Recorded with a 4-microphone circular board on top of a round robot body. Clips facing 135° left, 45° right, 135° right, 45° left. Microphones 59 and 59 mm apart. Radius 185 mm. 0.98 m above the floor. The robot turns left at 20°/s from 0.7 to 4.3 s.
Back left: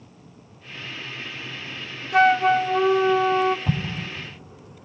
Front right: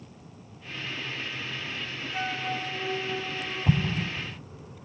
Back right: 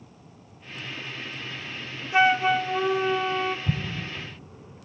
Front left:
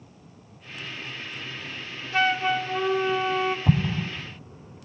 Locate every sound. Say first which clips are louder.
2.1 s a flute: back left 16 dB, back right 3 dB; 155° left, 0.6 m; by 3.6 s 125° left, 0.6 m
3.7 s an explosion: front right 1 dB, front left 6 dB; 50° left, 0.7 m; by 4.1 s 40° left, 0.7 m